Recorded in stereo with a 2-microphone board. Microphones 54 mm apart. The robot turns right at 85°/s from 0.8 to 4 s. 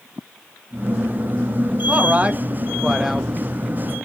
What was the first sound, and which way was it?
A man speaking, 25° right (ahead or behind).